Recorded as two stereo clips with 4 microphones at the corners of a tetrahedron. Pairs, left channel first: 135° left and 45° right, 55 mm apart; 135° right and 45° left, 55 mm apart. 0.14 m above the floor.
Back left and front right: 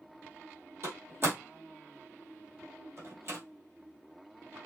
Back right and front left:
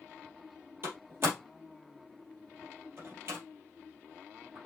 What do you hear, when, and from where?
0.8 s a door slam: straight ahead, 2.5 m